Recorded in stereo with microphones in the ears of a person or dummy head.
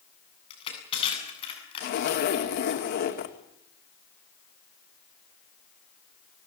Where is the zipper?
55° left (ahead or behind), 2.5 m.